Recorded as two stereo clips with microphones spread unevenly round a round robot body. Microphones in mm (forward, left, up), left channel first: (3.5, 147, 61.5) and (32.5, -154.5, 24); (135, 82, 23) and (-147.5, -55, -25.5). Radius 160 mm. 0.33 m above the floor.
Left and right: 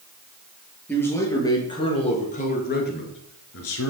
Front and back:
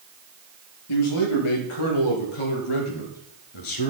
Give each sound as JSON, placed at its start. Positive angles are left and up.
{"t": 0.9, "sound": "a man speaking", "azimuth_deg": 10, "distance_m": 6.5}